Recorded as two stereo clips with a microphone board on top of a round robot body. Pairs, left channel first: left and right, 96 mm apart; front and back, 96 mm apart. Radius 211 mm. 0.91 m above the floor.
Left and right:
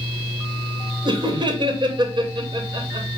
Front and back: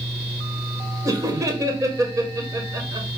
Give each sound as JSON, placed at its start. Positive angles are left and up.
{"t": 1.1, "sound": "laughter", "azimuth_deg": -120, "distance_m": 1.1}